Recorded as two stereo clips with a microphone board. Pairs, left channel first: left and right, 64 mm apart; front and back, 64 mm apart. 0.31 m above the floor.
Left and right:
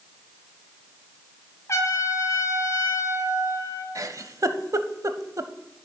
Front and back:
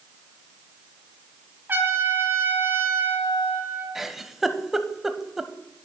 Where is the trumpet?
125° left, 2.5 m.